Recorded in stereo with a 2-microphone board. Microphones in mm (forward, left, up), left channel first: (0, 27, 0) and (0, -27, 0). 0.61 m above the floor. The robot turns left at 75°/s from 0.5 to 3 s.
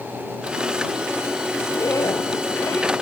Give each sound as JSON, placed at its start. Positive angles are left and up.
{"t": 1.7, "sound": "a zipper", "azimuth_deg": 135}